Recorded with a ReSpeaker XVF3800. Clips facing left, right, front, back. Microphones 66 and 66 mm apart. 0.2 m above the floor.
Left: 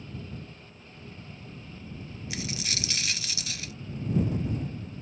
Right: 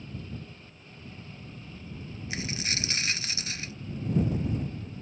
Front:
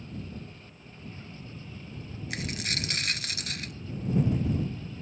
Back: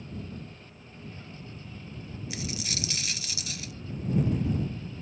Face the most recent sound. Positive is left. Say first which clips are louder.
# right 1 dB, front 2 dB
turn(degrees=-35)